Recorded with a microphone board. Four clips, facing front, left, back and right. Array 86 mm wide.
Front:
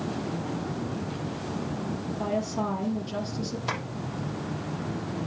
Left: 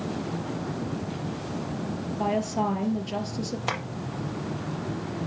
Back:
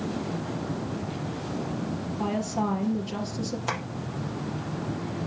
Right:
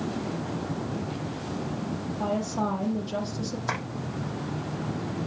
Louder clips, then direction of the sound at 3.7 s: Even, back 1 dB; 105° left.